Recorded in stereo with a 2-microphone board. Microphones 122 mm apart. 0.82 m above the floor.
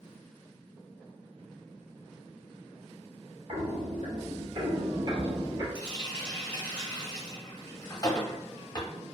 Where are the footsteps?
55° right (ahead or behind), 1.3 m; by 5.7 s 30° right (ahead or behind), 1.1 m.